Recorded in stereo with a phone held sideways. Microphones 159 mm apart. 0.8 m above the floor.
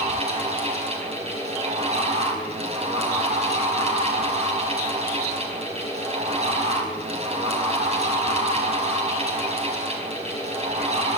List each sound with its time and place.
0.0 s a fan: 45° right (ahead or behind), 5 m